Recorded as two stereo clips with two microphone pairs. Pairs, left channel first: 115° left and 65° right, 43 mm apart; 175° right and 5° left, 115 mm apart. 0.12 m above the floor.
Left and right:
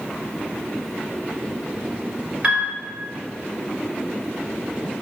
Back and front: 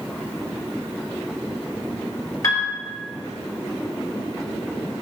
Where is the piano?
125° right, 0.8 m.